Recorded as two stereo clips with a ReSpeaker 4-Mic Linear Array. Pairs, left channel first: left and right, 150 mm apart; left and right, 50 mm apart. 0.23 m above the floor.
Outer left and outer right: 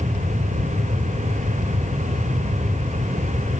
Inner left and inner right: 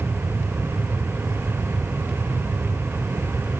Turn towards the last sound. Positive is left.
No sound to turn to.